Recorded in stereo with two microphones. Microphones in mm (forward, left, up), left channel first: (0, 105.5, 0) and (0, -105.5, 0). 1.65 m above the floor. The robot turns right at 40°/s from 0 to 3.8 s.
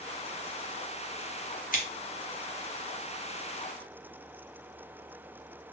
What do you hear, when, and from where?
1.7 s scissors: 40° left (ahead or behind), 0.7 m